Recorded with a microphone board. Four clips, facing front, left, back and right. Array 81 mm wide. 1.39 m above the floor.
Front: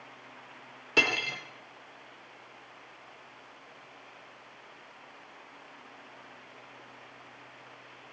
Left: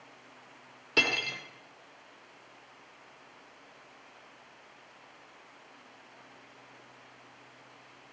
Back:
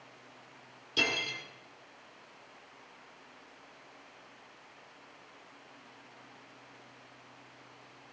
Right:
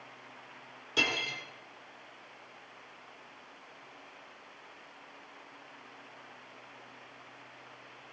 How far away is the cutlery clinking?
About 2 m.